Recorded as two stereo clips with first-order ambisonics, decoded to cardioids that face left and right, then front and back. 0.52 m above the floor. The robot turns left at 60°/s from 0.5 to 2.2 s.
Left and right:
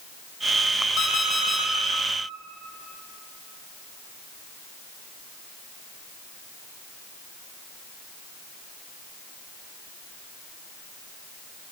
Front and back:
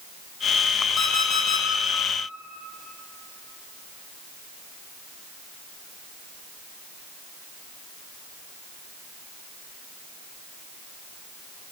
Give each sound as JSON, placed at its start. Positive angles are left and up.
{"t": 1.0, "sound": "an alarm clock", "azimuth_deg": 55, "distance_m": 1.1}